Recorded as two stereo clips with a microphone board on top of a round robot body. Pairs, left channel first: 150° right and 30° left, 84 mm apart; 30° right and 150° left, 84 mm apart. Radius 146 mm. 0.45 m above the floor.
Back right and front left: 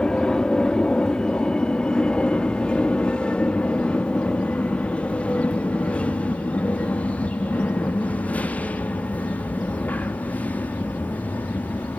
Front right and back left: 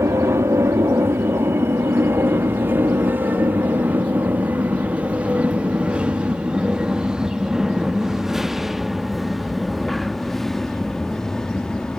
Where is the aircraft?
135° left; by 12.0 s 105° right.